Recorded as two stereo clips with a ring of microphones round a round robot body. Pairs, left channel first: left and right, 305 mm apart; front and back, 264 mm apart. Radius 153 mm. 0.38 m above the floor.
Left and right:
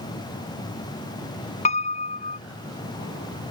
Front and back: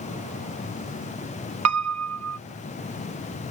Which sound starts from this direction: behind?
A piano, at 1.6 s.